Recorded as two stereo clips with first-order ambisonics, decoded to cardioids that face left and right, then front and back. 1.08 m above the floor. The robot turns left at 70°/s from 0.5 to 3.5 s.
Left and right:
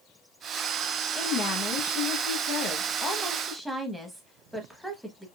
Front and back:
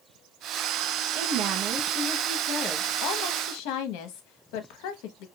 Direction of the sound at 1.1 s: 160° left.